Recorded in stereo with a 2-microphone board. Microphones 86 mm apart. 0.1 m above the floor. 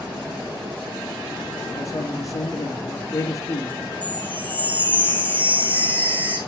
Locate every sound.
1.8 s a man speaking: 35° left (ahead or behind), 3.5 m
4.0 s a chime: 20° right (ahead or behind), 7 m